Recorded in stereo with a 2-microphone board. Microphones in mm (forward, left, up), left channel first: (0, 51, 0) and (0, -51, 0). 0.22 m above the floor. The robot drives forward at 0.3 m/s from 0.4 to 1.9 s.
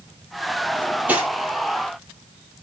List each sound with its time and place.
0.7 s cutlery clinking: 15° right (ahead or behind), 3 m